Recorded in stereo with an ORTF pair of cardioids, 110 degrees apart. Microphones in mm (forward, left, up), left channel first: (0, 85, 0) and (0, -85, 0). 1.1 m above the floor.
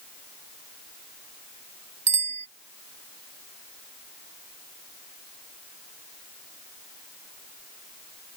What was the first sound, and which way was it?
A bicycle bell, 45° right.